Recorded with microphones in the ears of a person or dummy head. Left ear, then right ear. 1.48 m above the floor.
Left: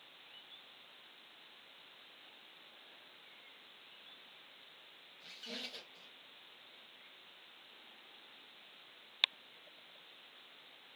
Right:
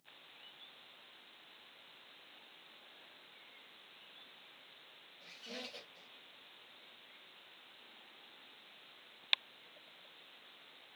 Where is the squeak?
25° left (ahead or behind), 1.3 m.